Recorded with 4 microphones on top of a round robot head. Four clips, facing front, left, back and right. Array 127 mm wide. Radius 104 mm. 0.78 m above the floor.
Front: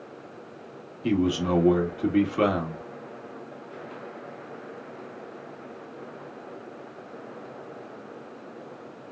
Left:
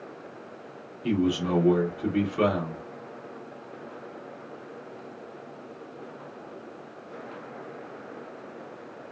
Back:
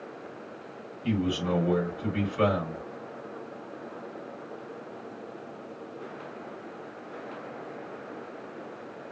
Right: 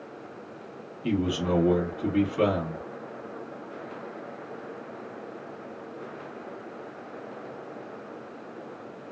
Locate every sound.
1.0 s a man speaking: straight ahead, 1.8 m